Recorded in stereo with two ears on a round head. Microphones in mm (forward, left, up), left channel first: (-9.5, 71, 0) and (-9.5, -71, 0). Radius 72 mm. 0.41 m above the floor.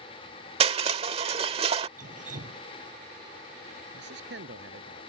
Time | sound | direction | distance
0.6 | crushing | 40° right (ahead or behind) | ?
2.0 | dripping | 55° right (ahead or behind) | ?
3.9 | a man speaking | 80° right | ?